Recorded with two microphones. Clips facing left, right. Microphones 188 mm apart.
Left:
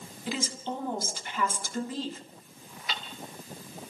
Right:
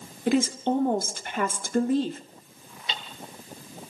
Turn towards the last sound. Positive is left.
turn(degrees=-25)  # may be behind; listen again after turning